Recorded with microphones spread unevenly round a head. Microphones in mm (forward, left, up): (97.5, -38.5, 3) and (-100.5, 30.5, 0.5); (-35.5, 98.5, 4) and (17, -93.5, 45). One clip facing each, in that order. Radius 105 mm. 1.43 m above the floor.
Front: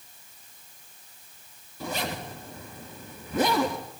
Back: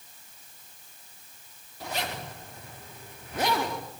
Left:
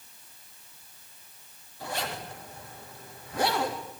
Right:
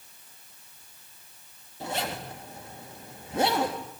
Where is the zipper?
5° right, 3 m.